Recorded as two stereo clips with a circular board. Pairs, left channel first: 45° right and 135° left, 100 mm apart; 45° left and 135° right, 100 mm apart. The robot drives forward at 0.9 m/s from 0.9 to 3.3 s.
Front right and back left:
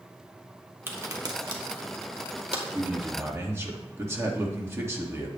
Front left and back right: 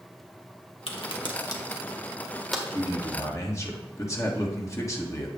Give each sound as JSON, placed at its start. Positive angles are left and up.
{"t": 0.9, "sound": "a crack", "azimuth_deg": 70, "distance_m": 1.2}
{"t": 2.7, "sound": "a man speaking", "azimuth_deg": 55, "distance_m": 1.5}